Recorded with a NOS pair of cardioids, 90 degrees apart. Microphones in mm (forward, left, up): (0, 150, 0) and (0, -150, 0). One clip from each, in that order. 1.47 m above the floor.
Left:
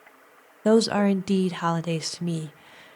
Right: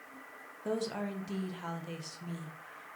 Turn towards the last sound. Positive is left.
turn(degrees=70)